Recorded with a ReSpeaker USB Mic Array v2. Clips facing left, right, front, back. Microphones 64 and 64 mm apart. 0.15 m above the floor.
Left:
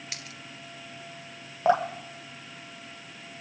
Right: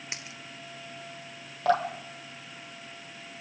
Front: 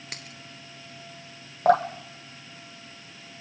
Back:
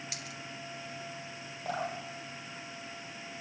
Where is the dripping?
20° left, 2.5 m.